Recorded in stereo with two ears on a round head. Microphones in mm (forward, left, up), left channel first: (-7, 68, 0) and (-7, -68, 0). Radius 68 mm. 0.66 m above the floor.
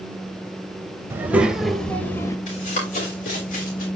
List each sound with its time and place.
1.1 s a child speaking: 15° right (ahead or behind), 1.5 m; by 2.4 s 20° left (ahead or behind), 1.4 m
2.5 s running footsteps: 45° left (ahead or behind), 5 m; by 3.9 s 55° left (ahead or behind), 4 m